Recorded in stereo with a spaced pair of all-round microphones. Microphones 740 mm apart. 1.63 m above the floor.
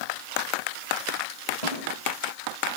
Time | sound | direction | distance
1.6 | a snare drum | 60° left (ahead or behind) | 10 m